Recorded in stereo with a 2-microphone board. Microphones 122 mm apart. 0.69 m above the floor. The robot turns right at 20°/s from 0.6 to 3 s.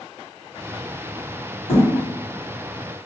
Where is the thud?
50° left (ahead or behind), 1.6 m; by 1.9 s 55° left (ahead or behind), 1.6 m.